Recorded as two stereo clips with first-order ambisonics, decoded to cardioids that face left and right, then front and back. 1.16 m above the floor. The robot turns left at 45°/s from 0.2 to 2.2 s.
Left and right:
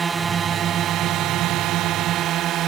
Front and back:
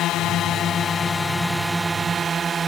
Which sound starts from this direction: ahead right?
A drone, at 0.0 s.